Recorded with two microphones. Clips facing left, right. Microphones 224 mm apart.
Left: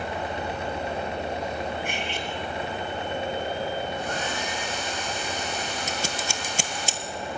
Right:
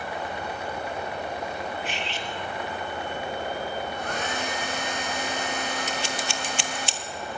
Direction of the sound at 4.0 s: 60° right (ahead or behind).